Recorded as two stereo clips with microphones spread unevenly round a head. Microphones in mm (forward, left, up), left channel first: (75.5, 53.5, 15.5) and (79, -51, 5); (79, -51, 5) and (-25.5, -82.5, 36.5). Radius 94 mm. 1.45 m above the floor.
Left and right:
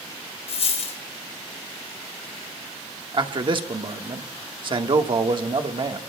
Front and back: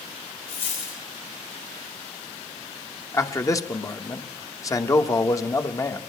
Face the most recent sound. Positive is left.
turn(degrees=-50)